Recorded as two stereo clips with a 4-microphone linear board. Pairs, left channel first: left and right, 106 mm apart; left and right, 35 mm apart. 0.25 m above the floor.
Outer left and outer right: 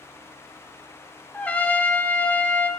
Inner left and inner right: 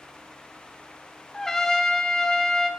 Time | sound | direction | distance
1.3 | a trumpet | 15° left (ahead or behind) | 0.7 m